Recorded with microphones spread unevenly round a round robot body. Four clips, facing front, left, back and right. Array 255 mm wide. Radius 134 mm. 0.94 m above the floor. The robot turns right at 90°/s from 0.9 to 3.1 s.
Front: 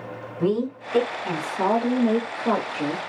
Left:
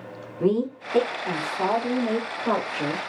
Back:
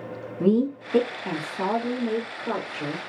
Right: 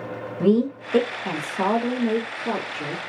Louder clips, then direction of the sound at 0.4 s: Right 3 dB, back 2 dB; 120° right.